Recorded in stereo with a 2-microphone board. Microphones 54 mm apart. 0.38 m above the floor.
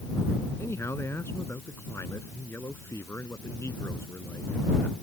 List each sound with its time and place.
0.6 s a man speaking: 55° left (ahead or behind)